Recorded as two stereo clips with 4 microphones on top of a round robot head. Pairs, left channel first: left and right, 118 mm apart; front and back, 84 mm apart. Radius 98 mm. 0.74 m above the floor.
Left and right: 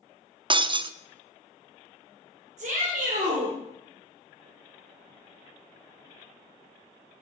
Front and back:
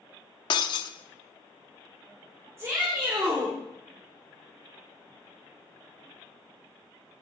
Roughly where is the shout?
Behind right.